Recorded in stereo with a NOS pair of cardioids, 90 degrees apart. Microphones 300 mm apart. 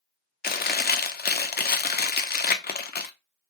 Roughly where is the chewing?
Ahead left.